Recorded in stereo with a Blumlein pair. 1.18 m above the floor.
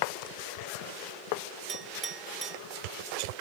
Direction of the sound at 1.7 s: 15° right.